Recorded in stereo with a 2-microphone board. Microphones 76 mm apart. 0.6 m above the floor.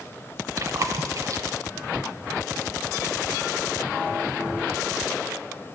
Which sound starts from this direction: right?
Chewing, at 0.6 s.